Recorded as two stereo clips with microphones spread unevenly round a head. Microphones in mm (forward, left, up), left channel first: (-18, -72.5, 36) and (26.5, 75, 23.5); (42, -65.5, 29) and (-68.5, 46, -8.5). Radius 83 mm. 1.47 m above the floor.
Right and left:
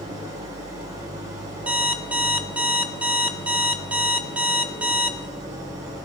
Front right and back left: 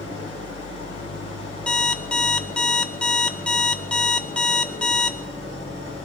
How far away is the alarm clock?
About 0.6 m.